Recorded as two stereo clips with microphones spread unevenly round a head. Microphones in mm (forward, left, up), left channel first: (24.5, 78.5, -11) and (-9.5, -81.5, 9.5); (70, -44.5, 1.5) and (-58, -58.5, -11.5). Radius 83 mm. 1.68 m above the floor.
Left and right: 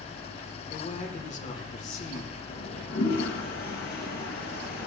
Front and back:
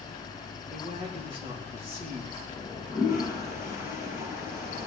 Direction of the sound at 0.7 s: 125° left.